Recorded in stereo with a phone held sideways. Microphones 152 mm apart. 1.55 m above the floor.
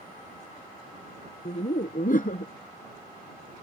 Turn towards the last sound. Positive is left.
turn(degrees=60)  # may be behind; listen again after turning